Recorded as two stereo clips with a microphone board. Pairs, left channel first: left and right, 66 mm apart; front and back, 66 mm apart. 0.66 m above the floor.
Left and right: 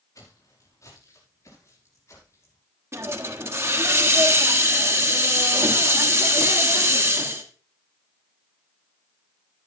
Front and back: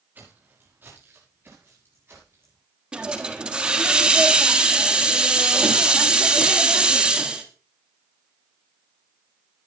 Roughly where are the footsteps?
Behind left.